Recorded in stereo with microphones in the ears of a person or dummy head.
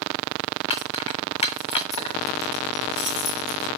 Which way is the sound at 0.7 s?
25° left (ahead or behind).